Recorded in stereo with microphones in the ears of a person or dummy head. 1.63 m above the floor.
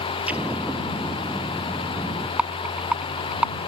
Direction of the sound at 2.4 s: 10° right (ahead or behind).